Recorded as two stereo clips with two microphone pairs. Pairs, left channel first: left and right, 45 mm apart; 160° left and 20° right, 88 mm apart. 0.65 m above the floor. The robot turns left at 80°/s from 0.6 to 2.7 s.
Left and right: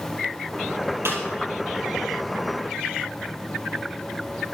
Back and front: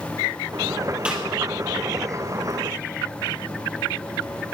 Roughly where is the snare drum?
Right.